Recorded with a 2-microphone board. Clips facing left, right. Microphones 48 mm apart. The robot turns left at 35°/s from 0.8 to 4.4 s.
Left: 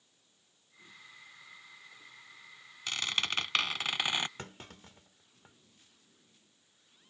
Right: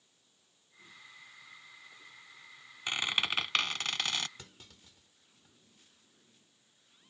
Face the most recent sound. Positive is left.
turn(degrees=50)  # may be behind; listen again after turning